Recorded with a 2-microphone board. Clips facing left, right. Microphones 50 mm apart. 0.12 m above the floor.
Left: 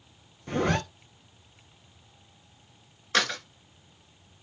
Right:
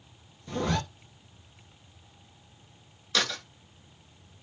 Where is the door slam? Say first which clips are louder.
Left 3 dB; 40° left (ahead or behind), 1.1 m.